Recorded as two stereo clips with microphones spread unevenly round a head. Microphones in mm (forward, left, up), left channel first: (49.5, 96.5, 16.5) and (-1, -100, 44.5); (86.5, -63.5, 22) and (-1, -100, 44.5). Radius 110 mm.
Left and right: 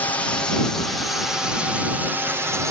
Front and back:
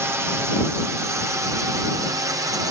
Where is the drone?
135° left; by 2.7 s straight behind.